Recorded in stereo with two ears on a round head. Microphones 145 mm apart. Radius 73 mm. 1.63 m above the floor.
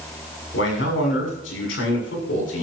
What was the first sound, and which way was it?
A man speaking, 80° left.